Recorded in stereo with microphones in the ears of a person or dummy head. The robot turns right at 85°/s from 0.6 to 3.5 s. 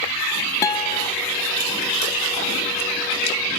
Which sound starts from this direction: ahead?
A guitar, at 0.6 s.